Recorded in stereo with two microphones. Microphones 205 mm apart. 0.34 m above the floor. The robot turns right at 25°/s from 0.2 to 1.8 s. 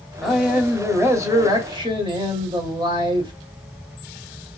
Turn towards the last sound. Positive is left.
turn(degrees=-140)